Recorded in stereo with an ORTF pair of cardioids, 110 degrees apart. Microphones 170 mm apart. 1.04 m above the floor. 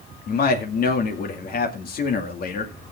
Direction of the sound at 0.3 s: 55° left.